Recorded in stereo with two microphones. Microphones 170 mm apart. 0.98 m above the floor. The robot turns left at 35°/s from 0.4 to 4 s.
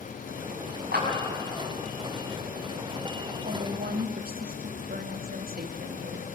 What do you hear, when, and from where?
0.9 s a clap: 70° right (ahead or behind), 6.5 m; by 1.1 s 75° right (ahead or behind), 6.5 m
3.5 s a woman speaking: 75° right (ahead or behind), 1.8 m; by 6.3 s 65° right (ahead or behind), 1.8 m